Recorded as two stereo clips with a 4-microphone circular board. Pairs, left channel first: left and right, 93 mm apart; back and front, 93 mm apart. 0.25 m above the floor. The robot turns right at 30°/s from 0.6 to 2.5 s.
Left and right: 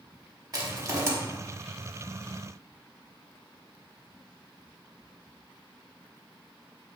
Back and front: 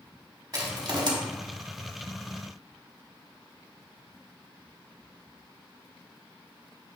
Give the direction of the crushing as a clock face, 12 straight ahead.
1 o'clock.